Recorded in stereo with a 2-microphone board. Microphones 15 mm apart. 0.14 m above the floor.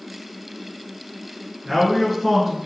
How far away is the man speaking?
About 1.7 m.